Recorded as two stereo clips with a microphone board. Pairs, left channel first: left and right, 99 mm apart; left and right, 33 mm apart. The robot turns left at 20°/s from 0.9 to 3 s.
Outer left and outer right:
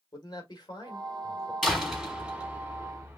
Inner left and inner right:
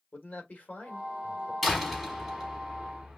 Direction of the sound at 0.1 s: 45° left (ahead or behind).